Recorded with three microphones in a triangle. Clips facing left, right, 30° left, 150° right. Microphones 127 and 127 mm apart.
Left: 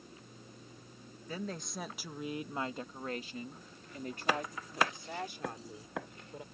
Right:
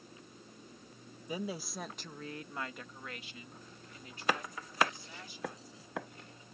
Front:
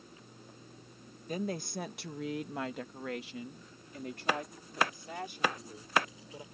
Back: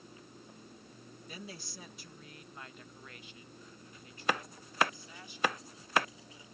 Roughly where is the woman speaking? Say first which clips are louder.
Right 2 dB, front 13 dB; ahead.